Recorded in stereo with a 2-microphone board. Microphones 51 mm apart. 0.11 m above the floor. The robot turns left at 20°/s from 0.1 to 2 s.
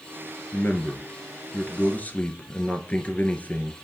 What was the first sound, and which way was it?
A man speaking, 40° left (ahead or behind).